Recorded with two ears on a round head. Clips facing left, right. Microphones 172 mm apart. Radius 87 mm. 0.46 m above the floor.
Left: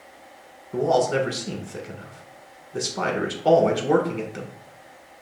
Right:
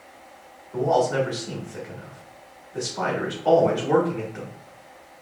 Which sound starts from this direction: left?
A man speaking, at 0.7 s.